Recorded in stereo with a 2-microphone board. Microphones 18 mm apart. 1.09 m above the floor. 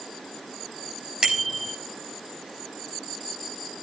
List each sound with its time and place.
1.2 s a bicycle bell: 45° right (ahead or behind), 4 m